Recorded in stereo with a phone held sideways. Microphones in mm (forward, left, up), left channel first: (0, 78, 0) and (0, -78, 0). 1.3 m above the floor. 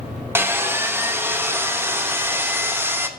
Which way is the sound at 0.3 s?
15° right (ahead or behind).